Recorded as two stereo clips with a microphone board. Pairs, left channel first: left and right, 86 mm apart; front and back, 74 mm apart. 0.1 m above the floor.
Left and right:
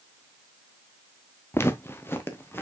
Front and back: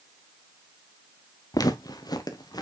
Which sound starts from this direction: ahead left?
Footsteps, at 1.5 s.